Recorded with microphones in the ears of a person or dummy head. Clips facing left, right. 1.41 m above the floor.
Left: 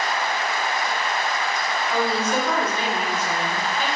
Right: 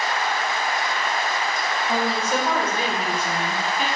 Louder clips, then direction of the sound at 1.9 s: Left 1 dB; 50° right (ahead or behind).